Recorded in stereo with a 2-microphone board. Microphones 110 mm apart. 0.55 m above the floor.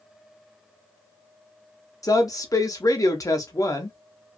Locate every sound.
2.0 s a woman speaking: 30° left (ahead or behind), 0.7 m